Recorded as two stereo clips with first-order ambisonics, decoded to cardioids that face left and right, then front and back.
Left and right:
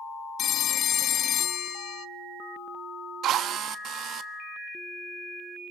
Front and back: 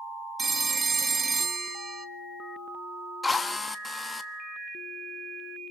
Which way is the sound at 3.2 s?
75° right.